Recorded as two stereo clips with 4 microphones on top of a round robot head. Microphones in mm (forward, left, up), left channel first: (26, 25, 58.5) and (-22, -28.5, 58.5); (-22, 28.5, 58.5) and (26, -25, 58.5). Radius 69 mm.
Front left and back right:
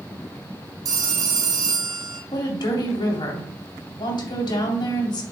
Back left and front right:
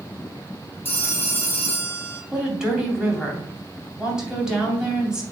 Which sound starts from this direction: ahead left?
A woman speaking, at 2.3 s.